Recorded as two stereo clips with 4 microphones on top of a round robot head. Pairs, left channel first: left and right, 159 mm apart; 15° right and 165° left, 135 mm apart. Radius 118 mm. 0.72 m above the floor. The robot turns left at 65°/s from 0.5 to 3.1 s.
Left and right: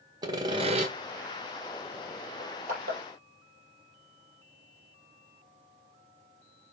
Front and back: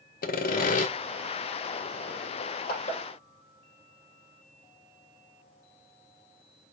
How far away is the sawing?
About 1.2 m.